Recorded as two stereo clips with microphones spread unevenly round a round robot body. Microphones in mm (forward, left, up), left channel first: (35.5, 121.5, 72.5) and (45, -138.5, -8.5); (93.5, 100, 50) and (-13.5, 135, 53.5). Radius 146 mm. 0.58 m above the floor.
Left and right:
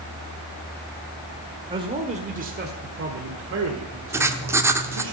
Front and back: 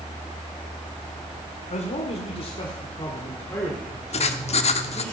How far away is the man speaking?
About 1.7 m.